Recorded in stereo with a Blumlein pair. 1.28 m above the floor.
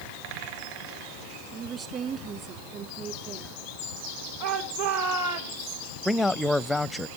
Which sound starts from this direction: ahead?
A man speaking, at 6.0 s.